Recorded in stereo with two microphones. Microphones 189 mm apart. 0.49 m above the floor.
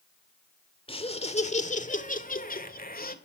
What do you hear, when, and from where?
0.9 s laughter: 30° left (ahead or behind), 1.7 m; by 3.1 s 55° left (ahead or behind), 1.9 m